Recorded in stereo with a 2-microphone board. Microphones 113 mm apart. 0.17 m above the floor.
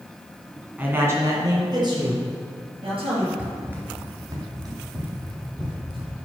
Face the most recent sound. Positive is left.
turn(degrees=-50)  # may be behind; listen again after turning